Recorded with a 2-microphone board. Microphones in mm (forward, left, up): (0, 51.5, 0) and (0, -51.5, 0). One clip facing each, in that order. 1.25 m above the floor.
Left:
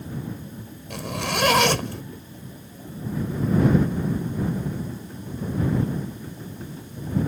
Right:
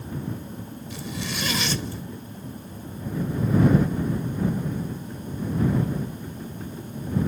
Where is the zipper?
65° left (ahead or behind).